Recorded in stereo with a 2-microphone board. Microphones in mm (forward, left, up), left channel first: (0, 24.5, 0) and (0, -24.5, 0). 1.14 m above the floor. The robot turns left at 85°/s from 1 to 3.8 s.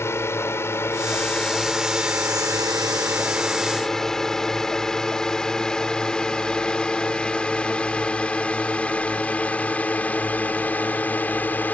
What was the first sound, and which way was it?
A drone, 60° left (ahead or behind).